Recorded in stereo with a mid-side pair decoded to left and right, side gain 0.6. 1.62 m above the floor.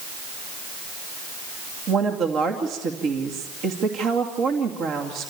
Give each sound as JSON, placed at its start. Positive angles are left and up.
{"t": 1.9, "sound": "a woman speaking", "azimuth_deg": -60, "distance_m": 2.5}